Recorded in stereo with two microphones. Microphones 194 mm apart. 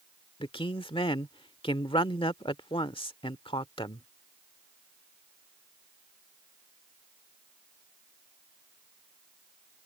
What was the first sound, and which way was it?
A man speaking, 25° left (ahead or behind).